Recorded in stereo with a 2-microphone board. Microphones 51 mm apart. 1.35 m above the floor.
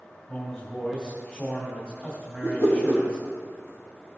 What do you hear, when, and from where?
0.3 s a man speaking: 40° left (ahead or behind), 2.5 m
2.4 s a whoosh: 65° left (ahead or behind), 2.5 m